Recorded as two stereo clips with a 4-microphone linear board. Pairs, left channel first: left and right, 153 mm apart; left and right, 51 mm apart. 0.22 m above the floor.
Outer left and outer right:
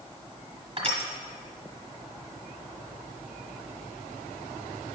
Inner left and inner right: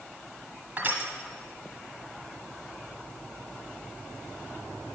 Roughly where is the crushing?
Right.